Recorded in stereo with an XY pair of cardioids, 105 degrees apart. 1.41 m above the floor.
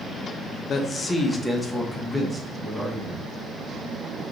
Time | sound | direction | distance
0.7 | a man speaking | 50° left | 0.7 m